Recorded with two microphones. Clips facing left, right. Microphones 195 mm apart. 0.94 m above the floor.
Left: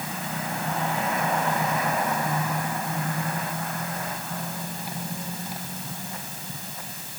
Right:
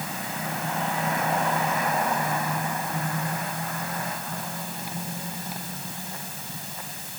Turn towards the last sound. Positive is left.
No sound to turn to.